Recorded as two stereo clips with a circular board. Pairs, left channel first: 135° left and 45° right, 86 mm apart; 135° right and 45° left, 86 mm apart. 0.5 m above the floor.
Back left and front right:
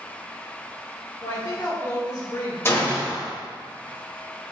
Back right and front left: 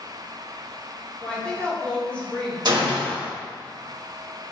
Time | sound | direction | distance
1.2 | a woman speaking | 150° left | 1.2 m
2.6 | a gunshot | 75° left | 1.0 m